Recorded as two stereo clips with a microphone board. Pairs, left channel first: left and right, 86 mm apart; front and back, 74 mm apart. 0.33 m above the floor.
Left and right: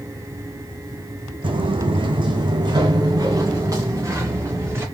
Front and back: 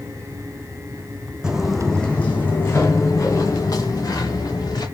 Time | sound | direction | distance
1.4 | footsteps | 100° right | 1.0 m